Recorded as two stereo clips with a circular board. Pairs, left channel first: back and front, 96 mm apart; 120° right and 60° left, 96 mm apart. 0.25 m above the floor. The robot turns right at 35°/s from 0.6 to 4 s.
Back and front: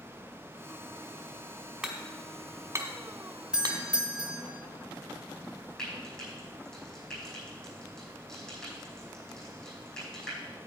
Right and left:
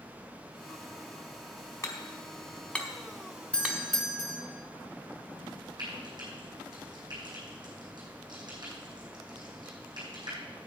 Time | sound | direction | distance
1.8 | hammering | 75° right | 1.8 m
3.5 | a doorbell | 65° right | 1.4 m
5.8 | frying | 95° left | 4.5 m